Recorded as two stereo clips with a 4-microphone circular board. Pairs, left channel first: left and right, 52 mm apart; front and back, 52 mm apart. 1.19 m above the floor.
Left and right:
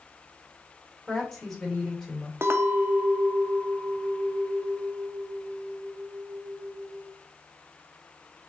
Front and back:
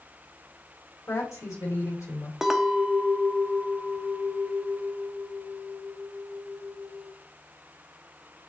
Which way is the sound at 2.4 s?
100° right.